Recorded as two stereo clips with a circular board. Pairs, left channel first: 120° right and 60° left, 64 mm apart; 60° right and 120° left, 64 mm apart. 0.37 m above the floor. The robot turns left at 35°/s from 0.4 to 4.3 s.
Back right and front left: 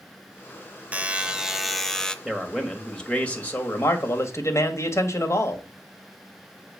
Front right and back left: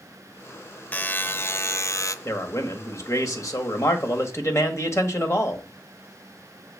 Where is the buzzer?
Straight ahead, 0.6 m; by 2.1 s 45° right, 0.6 m.